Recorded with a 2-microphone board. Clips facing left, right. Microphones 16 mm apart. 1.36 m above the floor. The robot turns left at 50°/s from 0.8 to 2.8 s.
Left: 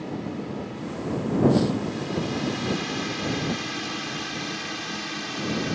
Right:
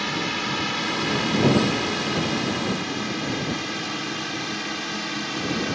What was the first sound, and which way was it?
A drone, 75° right (ahead or behind).